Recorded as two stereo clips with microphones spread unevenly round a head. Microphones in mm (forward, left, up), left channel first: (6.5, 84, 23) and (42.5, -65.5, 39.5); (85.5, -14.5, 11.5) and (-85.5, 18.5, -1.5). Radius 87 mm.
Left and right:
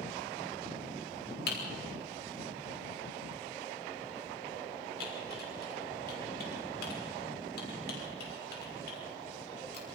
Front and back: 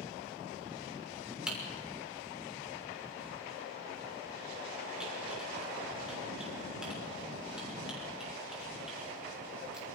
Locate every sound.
1.5 s typing on a keyboard: 85° left, 6 m